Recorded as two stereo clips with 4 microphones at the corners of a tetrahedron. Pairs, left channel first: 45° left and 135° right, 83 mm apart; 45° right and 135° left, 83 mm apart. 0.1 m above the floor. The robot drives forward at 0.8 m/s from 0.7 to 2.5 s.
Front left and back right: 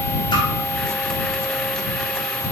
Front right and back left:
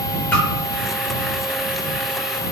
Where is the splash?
20° left, 1.8 m.